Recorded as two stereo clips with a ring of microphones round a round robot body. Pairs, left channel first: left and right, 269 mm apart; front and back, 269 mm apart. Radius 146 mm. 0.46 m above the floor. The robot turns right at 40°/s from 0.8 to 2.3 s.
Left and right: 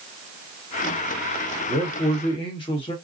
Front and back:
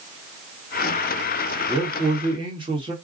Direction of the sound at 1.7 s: 110° left.